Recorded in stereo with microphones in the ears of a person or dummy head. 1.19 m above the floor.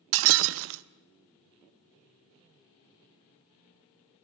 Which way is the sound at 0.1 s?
65° right (ahead or behind).